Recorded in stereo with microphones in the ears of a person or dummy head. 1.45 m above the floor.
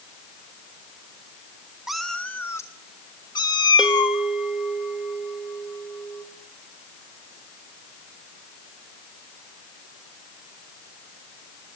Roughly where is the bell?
Centre.